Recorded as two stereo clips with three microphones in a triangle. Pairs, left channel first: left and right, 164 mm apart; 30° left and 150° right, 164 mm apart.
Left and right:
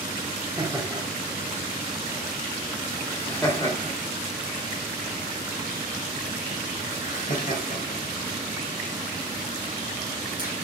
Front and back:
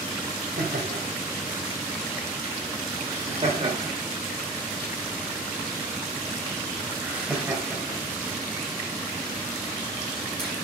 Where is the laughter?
165° right, 3 m; by 10.5 s 110° left, 5 m.